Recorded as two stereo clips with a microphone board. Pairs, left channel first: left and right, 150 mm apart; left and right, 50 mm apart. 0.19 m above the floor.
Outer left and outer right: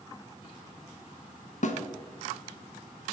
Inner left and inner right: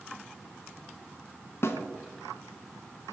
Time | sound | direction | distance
1.6 | a snare drum | 60° left (ahead or behind) | 0.7 m